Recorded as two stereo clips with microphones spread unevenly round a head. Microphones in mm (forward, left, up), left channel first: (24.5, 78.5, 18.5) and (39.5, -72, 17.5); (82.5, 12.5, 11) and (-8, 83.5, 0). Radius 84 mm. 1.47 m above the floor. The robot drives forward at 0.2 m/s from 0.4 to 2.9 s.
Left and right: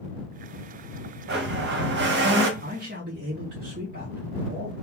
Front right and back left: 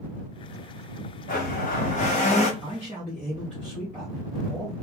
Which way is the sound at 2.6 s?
115° right.